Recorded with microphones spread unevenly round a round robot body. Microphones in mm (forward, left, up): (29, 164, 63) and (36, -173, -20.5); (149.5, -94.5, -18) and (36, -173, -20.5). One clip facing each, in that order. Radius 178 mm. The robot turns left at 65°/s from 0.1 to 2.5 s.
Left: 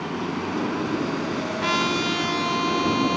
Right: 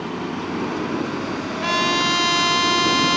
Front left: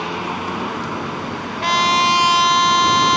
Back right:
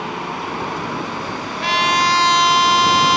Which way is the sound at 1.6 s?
Straight ahead.